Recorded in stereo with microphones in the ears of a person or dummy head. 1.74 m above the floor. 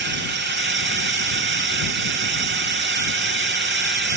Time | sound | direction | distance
0.0 | a drone | 50° right (ahead or behind) | ?